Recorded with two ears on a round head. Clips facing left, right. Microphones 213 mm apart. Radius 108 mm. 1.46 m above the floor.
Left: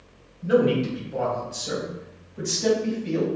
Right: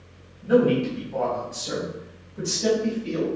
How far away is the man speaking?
About 3.5 m.